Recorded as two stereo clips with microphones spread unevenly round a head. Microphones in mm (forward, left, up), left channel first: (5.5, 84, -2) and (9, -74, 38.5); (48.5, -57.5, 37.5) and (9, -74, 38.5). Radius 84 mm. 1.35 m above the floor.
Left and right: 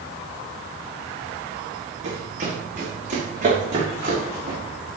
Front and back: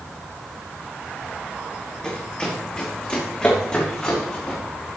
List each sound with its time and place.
2.0 s running footsteps: 50° right, 5 m; by 4.6 s 40° right, 7 m